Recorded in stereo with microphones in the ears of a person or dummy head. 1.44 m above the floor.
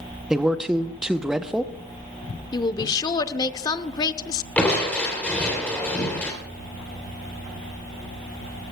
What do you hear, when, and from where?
0.3 s a man speaking: 5° right (ahead or behind), 0.7 m
2.5 s a woman speaking: 25° left (ahead or behind), 0.7 m
4.6 s crushing: 10° left (ahead or behind), 3 m